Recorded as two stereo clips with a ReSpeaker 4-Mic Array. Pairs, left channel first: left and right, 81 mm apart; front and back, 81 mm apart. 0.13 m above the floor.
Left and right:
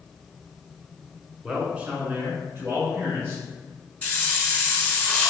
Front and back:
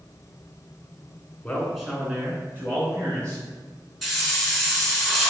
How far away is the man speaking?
About 1.2 m.